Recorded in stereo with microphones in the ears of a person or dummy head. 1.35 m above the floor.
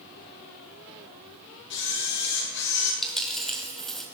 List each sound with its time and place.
1.7 s a camera shutter: 65° left (ahead or behind), 5.5 m
3.0 s a dropped coin: centre (ahead or behind), 2 m